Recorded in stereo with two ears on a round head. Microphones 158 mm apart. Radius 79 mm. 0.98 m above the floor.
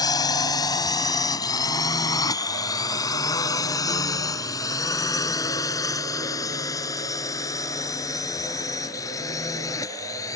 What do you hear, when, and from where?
0.0 s a drone: 20° left (ahead or behind)